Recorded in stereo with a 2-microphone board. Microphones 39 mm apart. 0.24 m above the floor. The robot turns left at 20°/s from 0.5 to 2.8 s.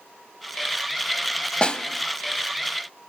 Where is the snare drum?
25° left (ahead or behind), 0.9 m.